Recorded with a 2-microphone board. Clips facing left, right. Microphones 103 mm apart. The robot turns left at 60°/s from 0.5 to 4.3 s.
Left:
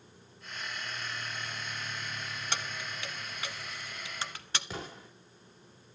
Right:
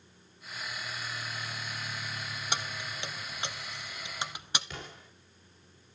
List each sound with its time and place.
2.5 s keys jangling: 15° right (ahead or behind), 0.9 m
4.7 s an explosion: 35° left (ahead or behind), 5 m